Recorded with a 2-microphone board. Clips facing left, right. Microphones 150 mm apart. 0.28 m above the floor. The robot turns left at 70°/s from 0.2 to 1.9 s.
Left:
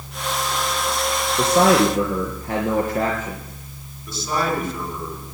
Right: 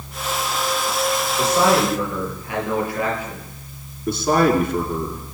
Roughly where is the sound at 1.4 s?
Left.